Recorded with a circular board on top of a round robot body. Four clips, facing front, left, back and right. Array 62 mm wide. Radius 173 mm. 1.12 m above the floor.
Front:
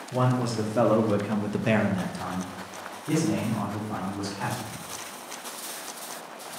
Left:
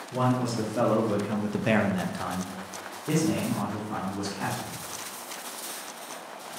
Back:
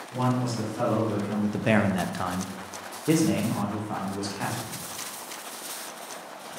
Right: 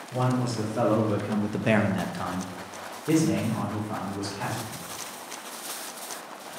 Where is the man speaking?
Straight ahead, 1.0 m; by 4.8 s straight behind, 1.8 m.